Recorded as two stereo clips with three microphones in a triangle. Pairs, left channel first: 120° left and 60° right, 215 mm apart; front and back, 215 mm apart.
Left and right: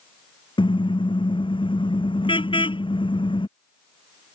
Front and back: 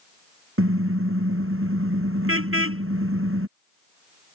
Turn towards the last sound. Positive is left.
turn(degrees=-175)